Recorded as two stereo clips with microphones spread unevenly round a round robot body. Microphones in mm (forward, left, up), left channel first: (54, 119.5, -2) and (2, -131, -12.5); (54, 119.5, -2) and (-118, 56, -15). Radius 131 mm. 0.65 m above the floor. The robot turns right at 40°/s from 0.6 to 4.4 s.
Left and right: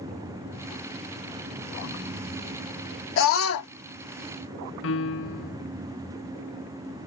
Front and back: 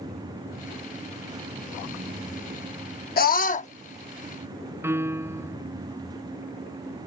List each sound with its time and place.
3.2 s a scream: 45° left; by 3.7 s 70° left
4.8 s a piano: 125° left